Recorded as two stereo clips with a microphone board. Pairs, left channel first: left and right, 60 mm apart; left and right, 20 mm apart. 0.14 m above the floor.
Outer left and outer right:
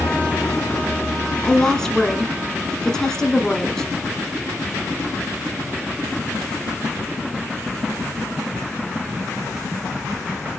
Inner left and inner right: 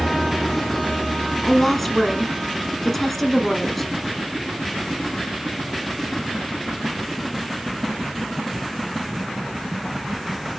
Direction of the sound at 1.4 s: 10° left (ahead or behind).